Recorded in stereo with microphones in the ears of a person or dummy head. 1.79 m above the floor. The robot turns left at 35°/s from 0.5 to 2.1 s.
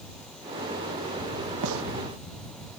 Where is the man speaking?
I don't hear a man speaking.